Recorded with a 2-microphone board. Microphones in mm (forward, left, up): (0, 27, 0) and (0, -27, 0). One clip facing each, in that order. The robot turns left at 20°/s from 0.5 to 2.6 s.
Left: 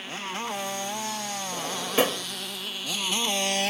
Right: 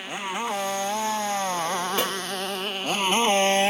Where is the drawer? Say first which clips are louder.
Right 1 dB; 15° left (ahead or behind); by 2.3 s 30° left (ahead or behind).